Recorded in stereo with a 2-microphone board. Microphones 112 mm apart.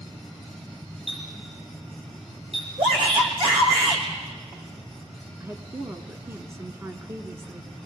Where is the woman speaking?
25° right (ahead or behind), 1.1 m.